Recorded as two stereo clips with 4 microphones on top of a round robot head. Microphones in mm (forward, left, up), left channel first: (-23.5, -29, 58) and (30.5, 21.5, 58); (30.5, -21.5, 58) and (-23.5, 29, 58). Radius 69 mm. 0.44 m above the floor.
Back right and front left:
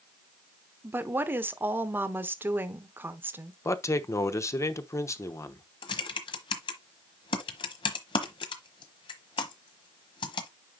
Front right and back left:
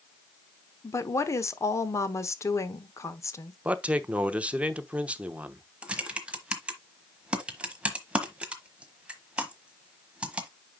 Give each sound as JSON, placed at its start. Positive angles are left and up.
{"t": 0.8, "sound": "a woman speaking", "azimuth_deg": -10, "distance_m": 1.2}
{"t": 3.6, "sound": "a man speaking", "azimuth_deg": -160, "distance_m": 0.9}
{"t": 5.8, "sound": "typing on a keyboard", "azimuth_deg": -150, "distance_m": 1.2}